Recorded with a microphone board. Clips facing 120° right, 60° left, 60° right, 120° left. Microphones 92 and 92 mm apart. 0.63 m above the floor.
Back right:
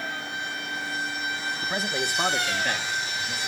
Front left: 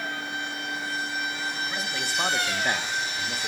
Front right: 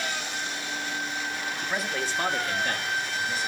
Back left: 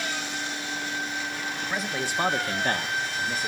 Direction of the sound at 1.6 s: 140° right.